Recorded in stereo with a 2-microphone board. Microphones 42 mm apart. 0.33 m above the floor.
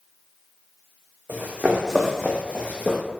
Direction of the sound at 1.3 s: 50° right (ahead or behind).